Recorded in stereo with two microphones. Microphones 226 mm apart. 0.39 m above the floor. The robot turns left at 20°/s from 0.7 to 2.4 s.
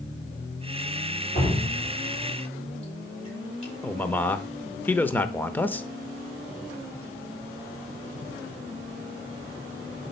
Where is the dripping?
45° left (ahead or behind), 7 m; by 3.7 s 25° left (ahead or behind), 7 m.